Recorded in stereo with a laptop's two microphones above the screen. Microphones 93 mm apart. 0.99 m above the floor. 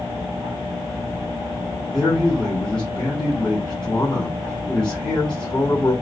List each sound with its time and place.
1.9 s a man speaking: 5° left (ahead or behind), 4.5 m